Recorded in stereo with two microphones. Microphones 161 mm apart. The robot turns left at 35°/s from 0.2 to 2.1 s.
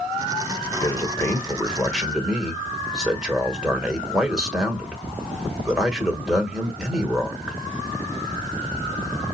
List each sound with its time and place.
0.8 s a man speaking: 40° left, 1.2 m; by 7.6 s 5° right, 1.2 m